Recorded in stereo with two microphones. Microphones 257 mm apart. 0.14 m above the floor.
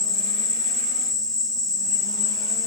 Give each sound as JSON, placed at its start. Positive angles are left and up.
{"t": 0.0, "sound": "an insect", "side_deg": 0, "distance_m": 2.0}